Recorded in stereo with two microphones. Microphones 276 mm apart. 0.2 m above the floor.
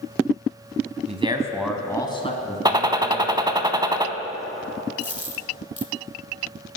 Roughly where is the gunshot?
Centre.